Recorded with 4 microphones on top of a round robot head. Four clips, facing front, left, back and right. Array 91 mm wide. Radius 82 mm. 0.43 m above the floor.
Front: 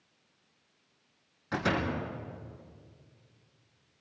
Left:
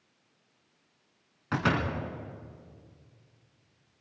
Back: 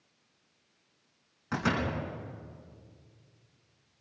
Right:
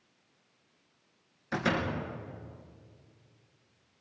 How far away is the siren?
I don't hear a siren.